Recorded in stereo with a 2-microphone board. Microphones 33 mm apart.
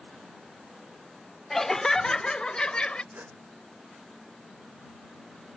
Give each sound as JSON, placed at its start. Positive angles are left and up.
{"t": 1.5, "sound": "laughter", "side_deg": 10}
{"t": 3.1, "sound": "a gasp", "side_deg": -80}